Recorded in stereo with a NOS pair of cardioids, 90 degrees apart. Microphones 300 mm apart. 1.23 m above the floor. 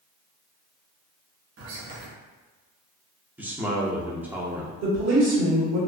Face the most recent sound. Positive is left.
turn(degrees=-70)